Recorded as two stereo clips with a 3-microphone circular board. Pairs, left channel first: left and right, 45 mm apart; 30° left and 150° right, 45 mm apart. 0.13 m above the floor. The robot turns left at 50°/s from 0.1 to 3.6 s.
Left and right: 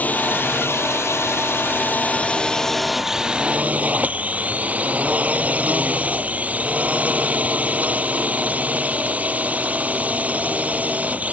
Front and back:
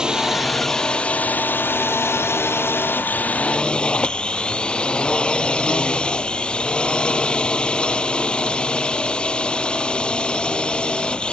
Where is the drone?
140° left; by 11.3 s 35° right.